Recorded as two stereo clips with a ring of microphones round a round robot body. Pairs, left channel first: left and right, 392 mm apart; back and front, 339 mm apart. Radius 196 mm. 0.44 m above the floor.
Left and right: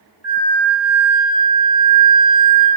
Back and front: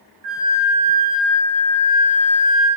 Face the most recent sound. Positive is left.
turn(degrees=15)